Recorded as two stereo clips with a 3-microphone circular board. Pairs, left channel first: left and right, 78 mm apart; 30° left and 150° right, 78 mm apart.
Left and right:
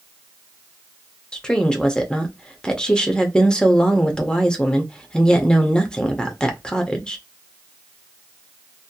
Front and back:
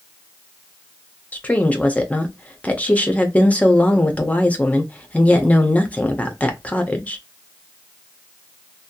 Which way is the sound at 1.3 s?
35° left.